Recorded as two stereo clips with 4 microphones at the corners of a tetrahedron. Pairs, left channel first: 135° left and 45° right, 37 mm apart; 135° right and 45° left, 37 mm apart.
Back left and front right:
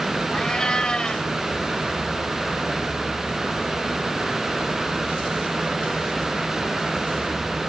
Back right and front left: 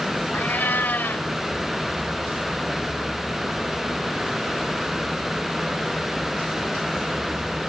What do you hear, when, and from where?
0.3 s a cat meowing: 160° right